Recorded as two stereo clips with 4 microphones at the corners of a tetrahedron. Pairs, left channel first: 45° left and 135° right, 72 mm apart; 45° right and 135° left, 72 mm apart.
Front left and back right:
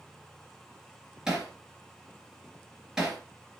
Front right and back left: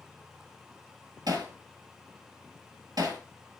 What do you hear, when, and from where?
1.3 s hammering: 145° left, 2.5 m